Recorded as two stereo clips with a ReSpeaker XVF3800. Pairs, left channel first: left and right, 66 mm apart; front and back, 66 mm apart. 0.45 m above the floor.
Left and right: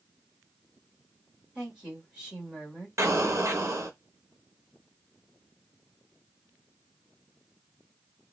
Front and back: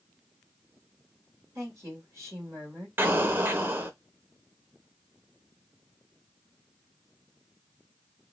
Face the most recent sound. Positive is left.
turn(degrees=-125)